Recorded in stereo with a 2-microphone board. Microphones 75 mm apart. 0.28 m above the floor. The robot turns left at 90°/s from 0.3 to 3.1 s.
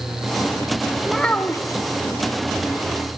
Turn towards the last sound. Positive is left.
turn(degrees=0)